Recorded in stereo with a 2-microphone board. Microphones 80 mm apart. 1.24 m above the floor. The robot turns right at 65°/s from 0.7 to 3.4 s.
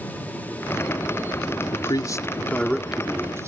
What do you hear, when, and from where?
1.7 s a man speaking: 105° left; by 3.5 s 145° right